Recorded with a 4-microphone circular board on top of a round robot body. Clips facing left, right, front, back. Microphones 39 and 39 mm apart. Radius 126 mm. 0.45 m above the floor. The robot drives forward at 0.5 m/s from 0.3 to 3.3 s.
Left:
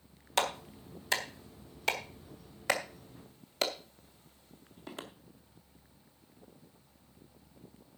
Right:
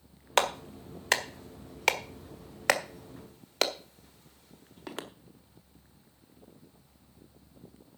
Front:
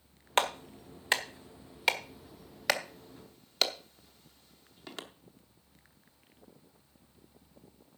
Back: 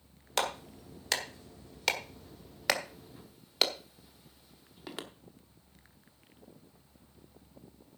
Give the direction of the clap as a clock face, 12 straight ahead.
2 o'clock.